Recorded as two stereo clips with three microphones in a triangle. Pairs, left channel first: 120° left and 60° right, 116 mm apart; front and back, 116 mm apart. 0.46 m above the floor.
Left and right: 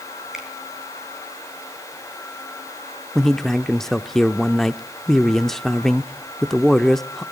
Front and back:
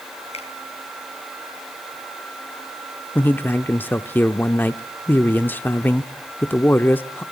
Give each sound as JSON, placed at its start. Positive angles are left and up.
{"t": 0.3, "sound": "a finger snap", "azimuth_deg": 25, "distance_m": 4.0}
{"t": 3.1, "sound": "a man speaking", "azimuth_deg": 40, "distance_m": 0.7}